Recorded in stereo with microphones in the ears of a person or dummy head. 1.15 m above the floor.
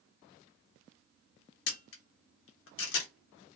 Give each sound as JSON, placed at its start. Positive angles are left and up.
{"t": 1.7, "sound": "a camera shutter", "side_deg": 60, "distance_m": 1.1}